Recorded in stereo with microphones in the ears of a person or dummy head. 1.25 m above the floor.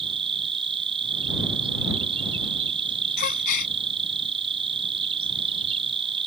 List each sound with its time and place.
0.0 s an insect: 30° right (ahead or behind)
3.2 s a gasp: 50° left (ahead or behind)